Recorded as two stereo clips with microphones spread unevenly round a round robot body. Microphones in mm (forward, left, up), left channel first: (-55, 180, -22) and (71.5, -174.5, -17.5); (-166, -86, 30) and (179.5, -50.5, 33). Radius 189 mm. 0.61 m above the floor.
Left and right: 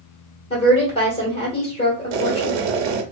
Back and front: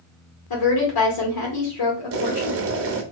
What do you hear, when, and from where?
0.5 s a woman speaking: 175° right, 1.7 m
2.1 s boiling: 50° right, 0.8 m